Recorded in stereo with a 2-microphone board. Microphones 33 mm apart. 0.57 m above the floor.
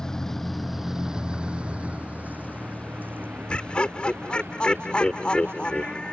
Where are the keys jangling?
No keys jangling in this recording.